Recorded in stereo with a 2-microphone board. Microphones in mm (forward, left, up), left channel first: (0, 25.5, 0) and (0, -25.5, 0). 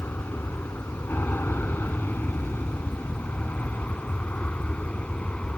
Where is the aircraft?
45° left (ahead or behind); by 5.6 s 25° left (ahead or behind).